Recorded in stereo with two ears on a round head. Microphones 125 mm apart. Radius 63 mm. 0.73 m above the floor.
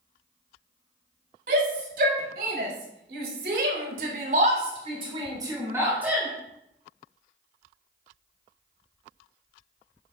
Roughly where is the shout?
Right.